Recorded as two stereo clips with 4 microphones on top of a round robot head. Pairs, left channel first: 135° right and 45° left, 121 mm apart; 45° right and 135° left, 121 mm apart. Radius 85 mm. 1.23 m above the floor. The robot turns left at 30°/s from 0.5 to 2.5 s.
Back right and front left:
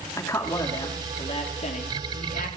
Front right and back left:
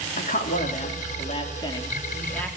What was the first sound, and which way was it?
A man speaking, 65° right.